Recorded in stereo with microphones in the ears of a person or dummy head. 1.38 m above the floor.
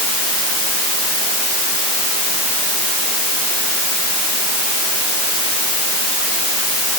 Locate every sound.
Only background noise.